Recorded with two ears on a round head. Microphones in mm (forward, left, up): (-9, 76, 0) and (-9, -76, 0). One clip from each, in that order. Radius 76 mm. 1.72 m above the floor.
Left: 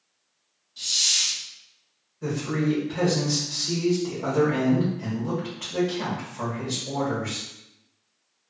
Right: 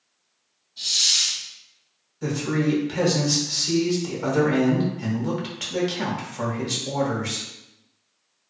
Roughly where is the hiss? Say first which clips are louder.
Right 2 dB; left.